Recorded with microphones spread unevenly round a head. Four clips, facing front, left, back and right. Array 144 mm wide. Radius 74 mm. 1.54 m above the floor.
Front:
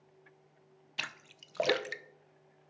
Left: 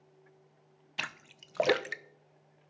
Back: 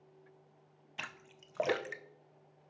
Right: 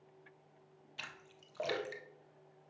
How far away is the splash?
About 0.6 m.